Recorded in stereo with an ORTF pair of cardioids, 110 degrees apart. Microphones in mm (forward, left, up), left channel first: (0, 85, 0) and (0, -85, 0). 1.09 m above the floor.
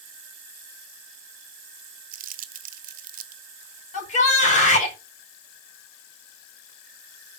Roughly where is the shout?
Ahead left.